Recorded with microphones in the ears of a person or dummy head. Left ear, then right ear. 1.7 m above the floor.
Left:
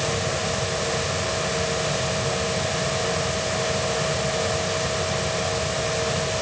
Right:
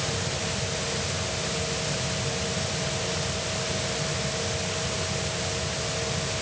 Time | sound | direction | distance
0.0 | a machine running | 55° left (ahead or behind) | ?